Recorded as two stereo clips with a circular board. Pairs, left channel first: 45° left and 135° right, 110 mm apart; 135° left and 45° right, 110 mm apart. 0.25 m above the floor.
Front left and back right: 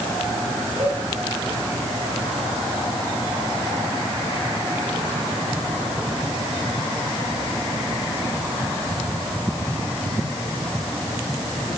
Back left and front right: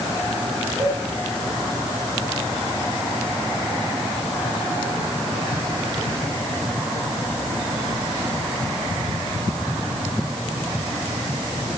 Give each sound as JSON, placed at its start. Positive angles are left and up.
{"t": 0.8, "sound": "a cowbell", "azimuth_deg": -85, "distance_m": 3.0}